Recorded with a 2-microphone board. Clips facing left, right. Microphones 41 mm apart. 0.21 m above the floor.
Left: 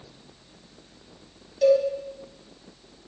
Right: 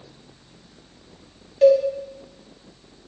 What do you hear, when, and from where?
1.6 s a cowbell: 40° right (ahead or behind), 0.8 m